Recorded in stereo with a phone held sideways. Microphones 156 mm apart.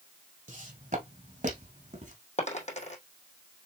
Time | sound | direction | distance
0.5 | footsteps | 55° right (ahead or behind) | 3 m
2.4 | a dropped coin | 45° left (ahead or behind) | 3 m